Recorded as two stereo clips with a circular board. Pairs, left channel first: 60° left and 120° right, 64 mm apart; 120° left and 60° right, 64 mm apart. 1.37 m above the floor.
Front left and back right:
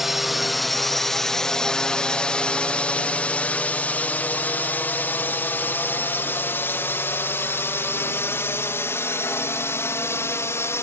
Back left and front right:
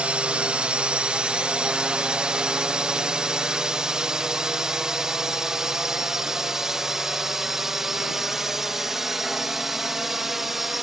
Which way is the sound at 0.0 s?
45° right.